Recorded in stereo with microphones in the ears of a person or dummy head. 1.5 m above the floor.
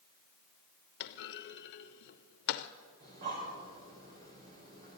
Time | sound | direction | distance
1.0 | a clunk | 55° left (ahead or behind) | 0.7 m
3.0 | breathing | 50° right (ahead or behind) | 4.5 m